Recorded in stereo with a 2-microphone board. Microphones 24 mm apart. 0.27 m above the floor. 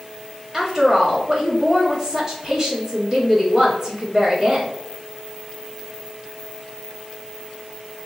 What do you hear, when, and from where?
0.5 s a woman speaking: 25° right (ahead or behind), 0.9 m